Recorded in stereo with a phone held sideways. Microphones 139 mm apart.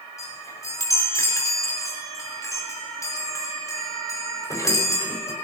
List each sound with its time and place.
0.2 s a chime: 25° left (ahead or behind), 5.5 m